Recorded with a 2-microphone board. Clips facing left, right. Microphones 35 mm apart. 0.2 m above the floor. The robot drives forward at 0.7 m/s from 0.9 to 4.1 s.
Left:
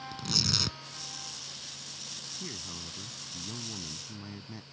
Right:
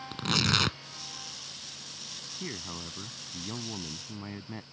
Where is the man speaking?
30° right (ahead or behind).